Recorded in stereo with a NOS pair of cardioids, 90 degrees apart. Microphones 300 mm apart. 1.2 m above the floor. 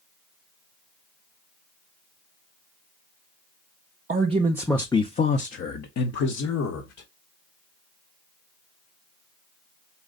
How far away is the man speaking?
About 0.9 m.